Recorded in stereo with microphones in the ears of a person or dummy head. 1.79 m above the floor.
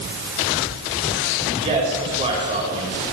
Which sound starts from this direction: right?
A man speaking, at 1.6 s.